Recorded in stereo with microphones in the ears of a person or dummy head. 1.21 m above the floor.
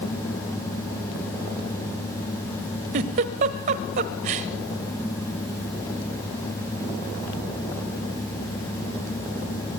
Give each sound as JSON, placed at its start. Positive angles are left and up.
{"t": 2.9, "sound": "a giggle", "side_deg": -40, "distance_m": 1.4}